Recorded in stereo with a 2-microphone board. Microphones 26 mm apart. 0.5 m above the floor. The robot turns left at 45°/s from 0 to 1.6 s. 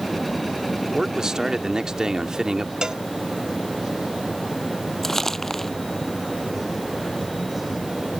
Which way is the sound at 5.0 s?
15° left (ahead or behind).